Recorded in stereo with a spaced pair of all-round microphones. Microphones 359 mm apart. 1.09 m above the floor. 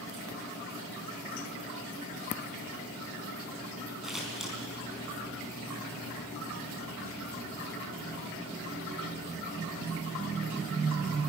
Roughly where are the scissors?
Centre.